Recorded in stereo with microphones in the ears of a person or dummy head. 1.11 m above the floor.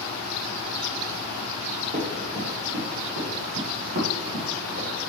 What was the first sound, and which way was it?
Running footsteps, 30° right (ahead or behind).